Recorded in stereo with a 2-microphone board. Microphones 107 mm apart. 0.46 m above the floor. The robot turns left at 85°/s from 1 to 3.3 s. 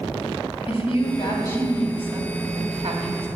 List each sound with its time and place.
0.7 s a woman speaking: 70° left, 3 m; by 3.3 s 125° right, 3 m